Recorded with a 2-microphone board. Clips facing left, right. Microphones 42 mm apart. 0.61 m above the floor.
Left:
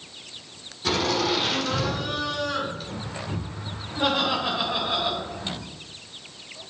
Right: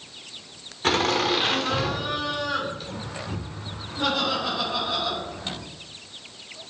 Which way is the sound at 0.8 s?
50° right (ahead or behind).